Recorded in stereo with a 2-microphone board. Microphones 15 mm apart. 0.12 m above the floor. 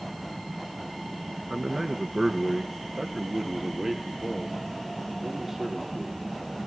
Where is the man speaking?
30° right (ahead or behind), 1.3 m; by 6.6 s 25° right (ahead or behind), 4 m.